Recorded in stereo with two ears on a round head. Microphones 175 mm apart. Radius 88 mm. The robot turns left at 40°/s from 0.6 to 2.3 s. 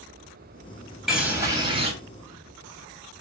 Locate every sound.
1.1 s a bird: straight ahead, 3 m; by 1.9 s 35° right, 3 m